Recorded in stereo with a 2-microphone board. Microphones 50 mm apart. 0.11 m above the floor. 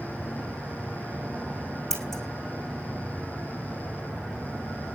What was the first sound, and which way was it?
Scissors, 10° left (ahead or behind).